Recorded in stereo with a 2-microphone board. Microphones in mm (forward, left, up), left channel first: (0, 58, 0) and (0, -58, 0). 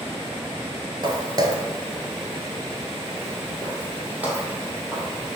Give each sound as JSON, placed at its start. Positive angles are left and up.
{"t": 1.0, "sound": "footsteps", "side_deg": -40, "distance_m": 1.0}